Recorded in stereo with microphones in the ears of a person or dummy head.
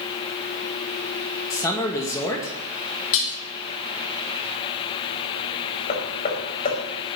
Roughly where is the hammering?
Left.